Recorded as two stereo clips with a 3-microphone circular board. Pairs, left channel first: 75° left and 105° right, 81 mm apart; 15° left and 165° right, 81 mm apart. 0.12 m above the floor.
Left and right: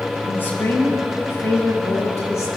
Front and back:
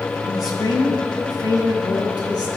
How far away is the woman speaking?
About 3 m.